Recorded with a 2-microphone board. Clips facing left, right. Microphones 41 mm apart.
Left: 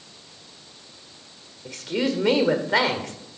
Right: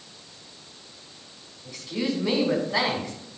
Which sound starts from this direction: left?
A woman speaking, at 1.6 s.